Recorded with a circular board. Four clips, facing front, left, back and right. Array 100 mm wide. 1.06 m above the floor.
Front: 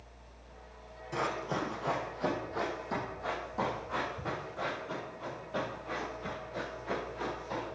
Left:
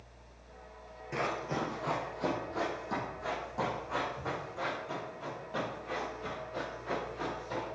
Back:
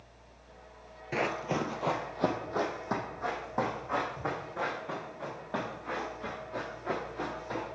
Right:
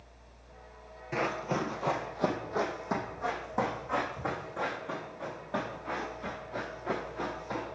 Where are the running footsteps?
160° right, 1.4 m; by 7.7 s 145° right, 9.5 m.